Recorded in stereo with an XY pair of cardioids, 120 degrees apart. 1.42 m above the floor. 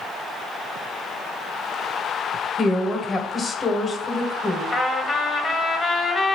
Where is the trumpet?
25° left, 1.0 m.